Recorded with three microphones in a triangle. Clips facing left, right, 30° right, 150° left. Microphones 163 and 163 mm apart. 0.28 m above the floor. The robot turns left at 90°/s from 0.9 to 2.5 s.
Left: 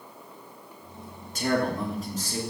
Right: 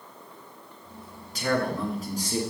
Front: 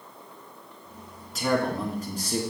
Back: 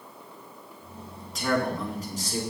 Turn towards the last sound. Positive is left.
turn(degrees=-45)